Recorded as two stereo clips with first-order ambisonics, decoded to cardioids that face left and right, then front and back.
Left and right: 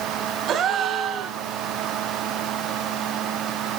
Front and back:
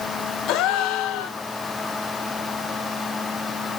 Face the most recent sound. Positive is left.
turn(degrees=-35)